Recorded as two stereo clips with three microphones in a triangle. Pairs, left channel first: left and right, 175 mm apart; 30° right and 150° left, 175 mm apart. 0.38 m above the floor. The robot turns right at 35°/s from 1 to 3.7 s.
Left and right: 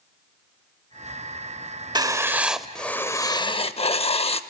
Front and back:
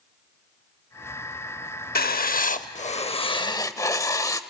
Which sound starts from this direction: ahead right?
Writing, at 1.9 s.